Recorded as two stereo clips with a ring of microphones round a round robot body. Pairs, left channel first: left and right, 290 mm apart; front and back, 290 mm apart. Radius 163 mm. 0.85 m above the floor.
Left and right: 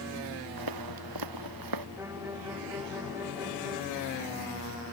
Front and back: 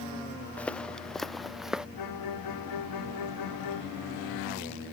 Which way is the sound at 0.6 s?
85° right.